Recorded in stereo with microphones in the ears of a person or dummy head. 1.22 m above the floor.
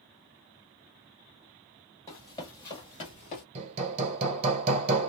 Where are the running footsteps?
15° left (ahead or behind), 1.7 m; by 3.5 s 30° left (ahead or behind), 1.4 m.